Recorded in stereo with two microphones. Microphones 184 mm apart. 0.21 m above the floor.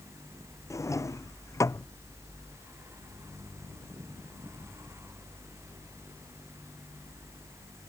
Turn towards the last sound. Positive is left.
turn(degrees=15)  # may be behind; listen again after turning